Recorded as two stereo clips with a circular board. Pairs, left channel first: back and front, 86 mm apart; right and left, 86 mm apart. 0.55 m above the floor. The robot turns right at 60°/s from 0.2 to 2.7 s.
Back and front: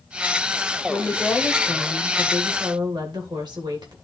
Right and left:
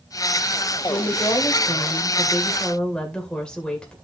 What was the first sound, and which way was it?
A woman speaking, 120° right.